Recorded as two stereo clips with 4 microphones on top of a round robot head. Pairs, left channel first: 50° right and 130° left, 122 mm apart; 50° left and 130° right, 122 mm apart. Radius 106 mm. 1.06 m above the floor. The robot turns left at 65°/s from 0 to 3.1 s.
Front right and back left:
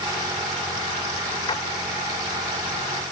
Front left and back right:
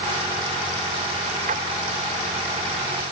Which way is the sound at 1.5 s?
105° right.